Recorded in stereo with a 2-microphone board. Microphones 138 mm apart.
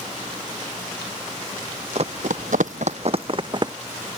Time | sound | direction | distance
1.9 | running footsteps | 50° right (ahead or behind) | ?